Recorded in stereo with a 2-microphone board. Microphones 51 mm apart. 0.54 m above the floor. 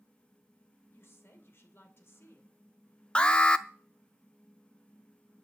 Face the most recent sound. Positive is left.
turn(degrees=20)  # may be behind; listen again after turning